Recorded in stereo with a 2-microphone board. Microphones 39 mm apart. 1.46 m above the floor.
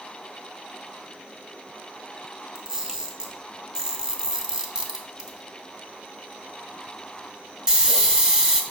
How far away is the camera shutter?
About 1.4 m.